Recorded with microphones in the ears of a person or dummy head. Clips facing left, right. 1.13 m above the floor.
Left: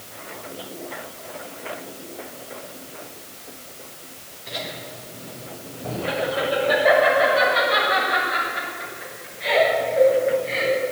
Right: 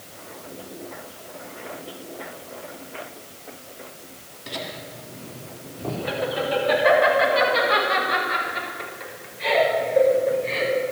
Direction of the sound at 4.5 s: 75° right (ahead or behind).